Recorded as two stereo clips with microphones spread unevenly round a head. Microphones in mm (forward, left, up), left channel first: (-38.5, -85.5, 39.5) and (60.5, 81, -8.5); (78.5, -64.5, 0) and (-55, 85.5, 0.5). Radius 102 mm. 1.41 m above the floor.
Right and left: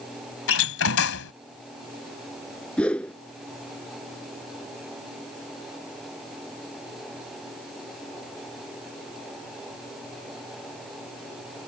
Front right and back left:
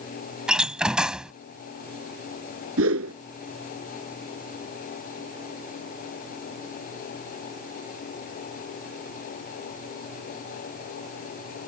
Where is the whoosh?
160° left.